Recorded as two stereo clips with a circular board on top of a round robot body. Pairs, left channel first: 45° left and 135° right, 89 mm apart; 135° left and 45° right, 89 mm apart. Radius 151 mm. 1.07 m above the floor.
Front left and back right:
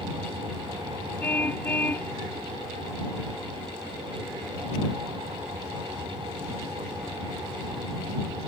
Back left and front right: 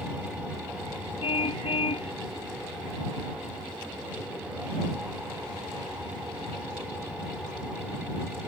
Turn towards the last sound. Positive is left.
turn(degrees=115)